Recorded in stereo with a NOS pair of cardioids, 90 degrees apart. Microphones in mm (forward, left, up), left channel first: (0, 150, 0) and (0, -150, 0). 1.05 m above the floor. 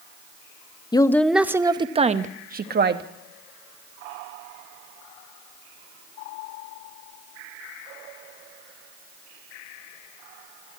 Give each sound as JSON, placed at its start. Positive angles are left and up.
{"t": 0.9, "sound": "a woman speaking", "azimuth_deg": 15, "distance_m": 0.7}